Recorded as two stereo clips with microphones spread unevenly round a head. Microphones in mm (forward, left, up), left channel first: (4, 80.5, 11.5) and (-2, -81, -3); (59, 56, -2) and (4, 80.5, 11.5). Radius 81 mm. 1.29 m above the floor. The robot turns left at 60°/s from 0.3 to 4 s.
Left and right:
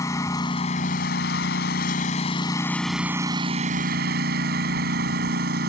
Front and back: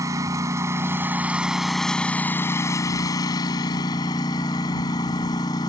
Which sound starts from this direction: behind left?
A lawn mower, at 0.0 s.